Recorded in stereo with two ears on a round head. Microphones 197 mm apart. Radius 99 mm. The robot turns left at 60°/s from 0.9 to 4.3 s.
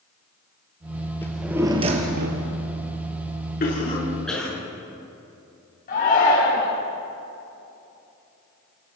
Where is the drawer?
10° left, 3 m; by 2.5 s 65° right, 3 m.